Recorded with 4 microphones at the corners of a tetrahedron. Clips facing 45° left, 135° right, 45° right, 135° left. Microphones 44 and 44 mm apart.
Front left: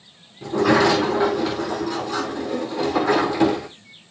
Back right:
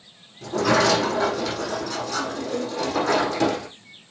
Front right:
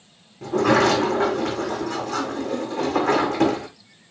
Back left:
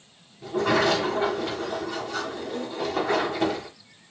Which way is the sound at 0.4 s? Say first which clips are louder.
Front left 3 dB, front right 5 dB; 30° right.